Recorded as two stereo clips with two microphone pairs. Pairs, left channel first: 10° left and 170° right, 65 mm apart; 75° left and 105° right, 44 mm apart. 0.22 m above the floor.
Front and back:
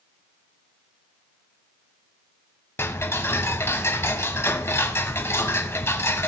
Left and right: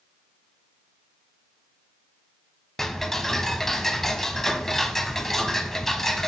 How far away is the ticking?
About 0.9 m.